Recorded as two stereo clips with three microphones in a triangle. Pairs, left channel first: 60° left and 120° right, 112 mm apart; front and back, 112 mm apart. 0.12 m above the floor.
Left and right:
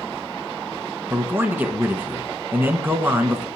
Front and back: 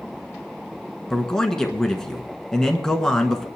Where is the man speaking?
75° right, 1.3 m.